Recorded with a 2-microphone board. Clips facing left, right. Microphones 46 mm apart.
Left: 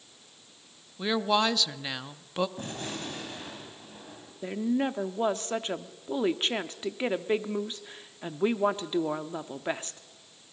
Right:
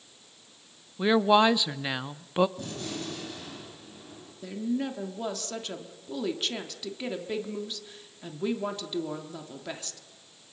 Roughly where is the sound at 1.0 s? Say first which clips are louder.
Right 5 dB; centre.